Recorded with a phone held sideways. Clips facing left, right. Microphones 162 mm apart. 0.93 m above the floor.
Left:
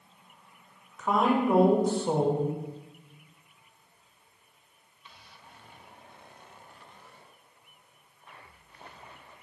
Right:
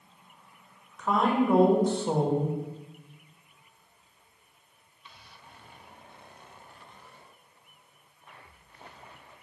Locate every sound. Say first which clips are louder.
1.0 s a woman speaking: even; 5° left (ahead or behind), 0.7 m